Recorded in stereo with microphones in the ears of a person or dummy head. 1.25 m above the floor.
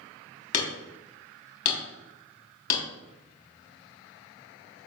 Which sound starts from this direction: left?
Hammering, at 0.5 s.